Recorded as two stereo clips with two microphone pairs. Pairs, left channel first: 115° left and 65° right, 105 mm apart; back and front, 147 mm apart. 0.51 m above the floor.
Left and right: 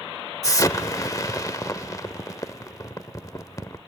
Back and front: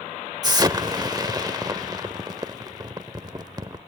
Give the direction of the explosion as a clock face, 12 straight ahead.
10 o'clock.